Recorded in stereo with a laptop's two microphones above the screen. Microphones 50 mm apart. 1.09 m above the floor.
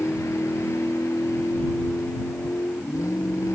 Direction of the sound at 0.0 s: 90° left.